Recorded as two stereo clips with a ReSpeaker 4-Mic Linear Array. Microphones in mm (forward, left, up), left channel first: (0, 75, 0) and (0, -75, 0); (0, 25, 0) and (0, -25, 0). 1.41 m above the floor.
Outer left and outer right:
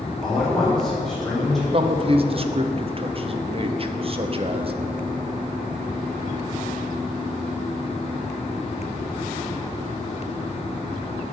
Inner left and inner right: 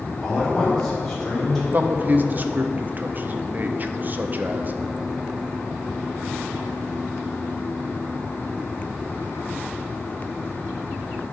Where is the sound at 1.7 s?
40° right (ahead or behind), 0.7 m.